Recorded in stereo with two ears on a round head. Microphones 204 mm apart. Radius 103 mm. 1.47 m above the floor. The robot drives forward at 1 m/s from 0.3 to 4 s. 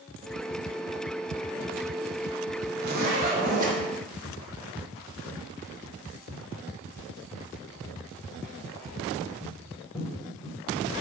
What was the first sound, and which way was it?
A zipper, 50° right (ahead or behind).